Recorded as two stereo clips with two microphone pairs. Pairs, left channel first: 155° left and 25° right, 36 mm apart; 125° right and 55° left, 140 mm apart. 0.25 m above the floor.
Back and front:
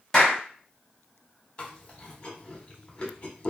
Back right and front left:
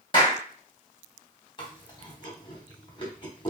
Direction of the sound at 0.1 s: 135° right.